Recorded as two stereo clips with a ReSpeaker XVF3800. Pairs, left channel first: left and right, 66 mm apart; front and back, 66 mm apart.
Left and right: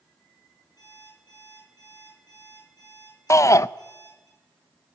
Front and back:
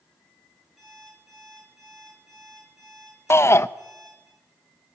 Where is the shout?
50° left, 0.6 m.